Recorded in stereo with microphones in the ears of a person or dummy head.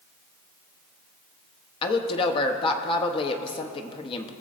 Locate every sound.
1.8 s a woman speaking: 30° left (ahead or behind), 0.8 m